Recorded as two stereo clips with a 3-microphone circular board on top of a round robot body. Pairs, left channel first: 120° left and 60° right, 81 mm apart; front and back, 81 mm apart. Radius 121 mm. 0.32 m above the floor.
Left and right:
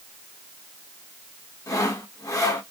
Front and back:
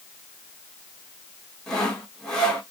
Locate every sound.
1.7 s sawing: 80° left, 2.5 m